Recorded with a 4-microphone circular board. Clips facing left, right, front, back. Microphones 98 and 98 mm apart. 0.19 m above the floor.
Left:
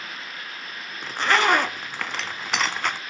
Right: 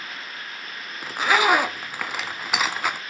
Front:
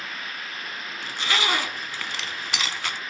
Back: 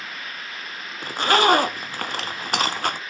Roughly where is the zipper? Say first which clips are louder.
Right 1 dB, back 9 dB; behind.